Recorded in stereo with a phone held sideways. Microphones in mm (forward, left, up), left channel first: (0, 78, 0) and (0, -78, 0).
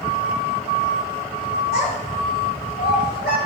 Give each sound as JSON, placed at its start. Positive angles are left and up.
{"t": 1.7, "sound": "a child speaking", "side_deg": 85, "distance_m": 5.5}